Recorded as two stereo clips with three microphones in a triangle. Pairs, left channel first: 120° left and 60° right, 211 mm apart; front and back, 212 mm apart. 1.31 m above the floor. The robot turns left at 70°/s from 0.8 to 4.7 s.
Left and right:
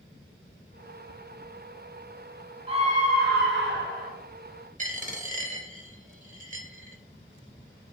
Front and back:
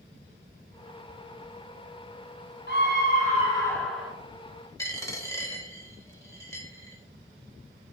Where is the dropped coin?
65° right, 0.8 m.